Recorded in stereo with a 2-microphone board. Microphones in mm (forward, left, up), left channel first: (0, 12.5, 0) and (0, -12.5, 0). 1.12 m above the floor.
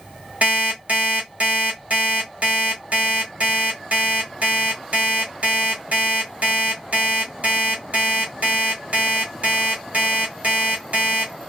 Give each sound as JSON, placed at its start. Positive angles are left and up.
{"t": 0.4, "sound": "an alarm clock", "side_deg": -70, "distance_m": 1.9}